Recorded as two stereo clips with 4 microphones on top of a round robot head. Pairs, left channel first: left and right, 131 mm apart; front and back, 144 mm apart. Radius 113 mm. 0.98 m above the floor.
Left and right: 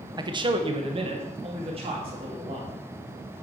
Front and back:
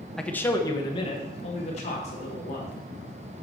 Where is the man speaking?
85° right, 0.9 m; by 2.7 s 40° right, 3 m.